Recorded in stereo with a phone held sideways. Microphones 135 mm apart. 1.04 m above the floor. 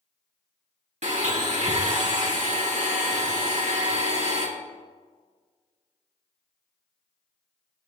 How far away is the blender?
About 1.7 m.